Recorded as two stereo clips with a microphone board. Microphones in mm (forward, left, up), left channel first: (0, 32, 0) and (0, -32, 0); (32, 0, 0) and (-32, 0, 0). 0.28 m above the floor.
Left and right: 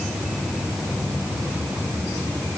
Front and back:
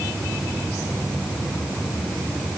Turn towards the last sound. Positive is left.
No sound to turn to.